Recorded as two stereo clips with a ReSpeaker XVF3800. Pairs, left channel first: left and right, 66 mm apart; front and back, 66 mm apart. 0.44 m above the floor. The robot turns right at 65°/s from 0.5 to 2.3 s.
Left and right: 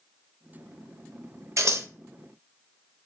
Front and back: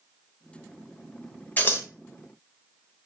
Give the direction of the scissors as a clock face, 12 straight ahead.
2 o'clock.